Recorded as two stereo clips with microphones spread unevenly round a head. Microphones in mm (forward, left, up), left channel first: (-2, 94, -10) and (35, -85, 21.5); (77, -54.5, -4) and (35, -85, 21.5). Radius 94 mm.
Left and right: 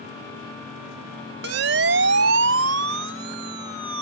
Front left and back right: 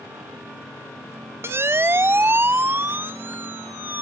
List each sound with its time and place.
1.4 s a siren: 110° right; by 4.0 s 95° right